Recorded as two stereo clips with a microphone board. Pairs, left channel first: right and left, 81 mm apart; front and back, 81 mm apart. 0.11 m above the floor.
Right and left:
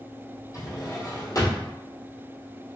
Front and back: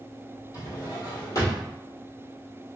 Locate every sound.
0.5 s a drawer: 45° right, 1.4 m